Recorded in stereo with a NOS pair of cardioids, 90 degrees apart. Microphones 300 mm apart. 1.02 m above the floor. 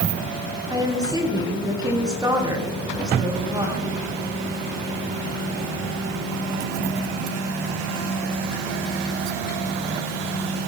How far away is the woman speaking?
About 8.5 m.